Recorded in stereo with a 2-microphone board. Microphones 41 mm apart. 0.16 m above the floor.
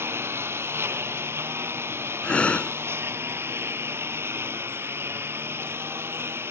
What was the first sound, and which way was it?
A lawn mower, 70° right (ahead or behind).